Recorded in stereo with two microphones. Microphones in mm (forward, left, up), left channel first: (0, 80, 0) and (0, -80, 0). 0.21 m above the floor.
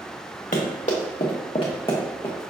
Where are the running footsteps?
50° left (ahead or behind), 1.6 m; by 2.5 s 10° left (ahead or behind), 1.3 m.